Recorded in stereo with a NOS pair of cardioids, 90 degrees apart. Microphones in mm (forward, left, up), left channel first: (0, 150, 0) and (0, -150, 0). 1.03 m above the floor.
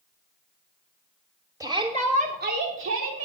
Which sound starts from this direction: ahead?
A shout, at 1.6 s.